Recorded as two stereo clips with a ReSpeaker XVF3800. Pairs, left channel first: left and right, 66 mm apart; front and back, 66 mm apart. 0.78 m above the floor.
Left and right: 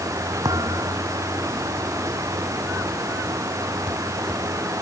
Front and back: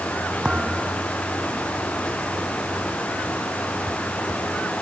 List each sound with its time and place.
0.5 s a thud: 105° right